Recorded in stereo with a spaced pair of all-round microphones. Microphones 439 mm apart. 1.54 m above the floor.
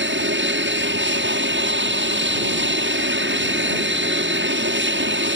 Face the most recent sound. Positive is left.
turn(degrees=-25)  # may be behind; listen again after turning